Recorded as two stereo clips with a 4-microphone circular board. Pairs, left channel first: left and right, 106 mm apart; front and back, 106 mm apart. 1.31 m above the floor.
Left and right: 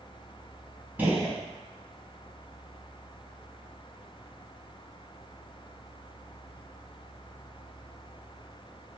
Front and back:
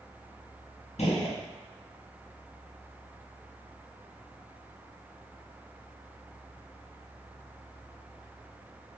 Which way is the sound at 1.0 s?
15° right.